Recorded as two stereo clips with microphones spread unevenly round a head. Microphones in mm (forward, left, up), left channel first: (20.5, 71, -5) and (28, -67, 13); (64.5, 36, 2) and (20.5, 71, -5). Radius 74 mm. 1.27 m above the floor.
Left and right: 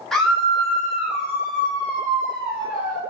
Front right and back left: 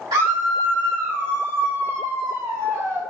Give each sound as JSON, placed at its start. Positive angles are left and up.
{"t": 0.1, "sound": "a scream", "azimuth_deg": 180, "distance_m": 1.5}